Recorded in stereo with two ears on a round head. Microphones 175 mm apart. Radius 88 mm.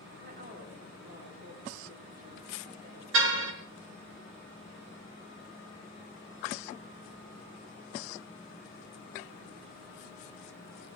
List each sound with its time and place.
0.2 s a woman speaking: 50° right (ahead or behind), 5.5 m
3.1 s a car horn: 75° right (ahead or behind), 4 m